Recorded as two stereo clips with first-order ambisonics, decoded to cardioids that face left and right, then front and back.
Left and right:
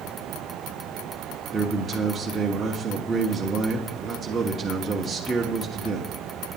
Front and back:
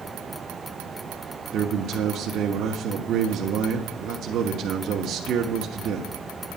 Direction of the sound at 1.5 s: 160° right.